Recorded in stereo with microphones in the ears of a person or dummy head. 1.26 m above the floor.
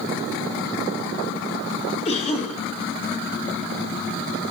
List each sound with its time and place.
2.0 s a cough: 35° left (ahead or behind), 1.7 m